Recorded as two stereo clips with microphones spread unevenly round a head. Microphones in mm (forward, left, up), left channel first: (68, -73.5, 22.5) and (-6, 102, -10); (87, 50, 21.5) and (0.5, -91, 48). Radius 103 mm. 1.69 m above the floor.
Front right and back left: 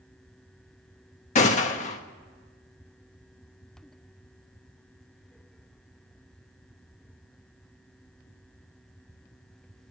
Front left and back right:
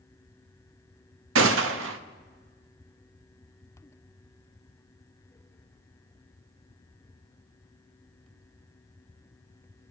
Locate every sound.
1.4 s a gunshot: 125° right, 0.9 m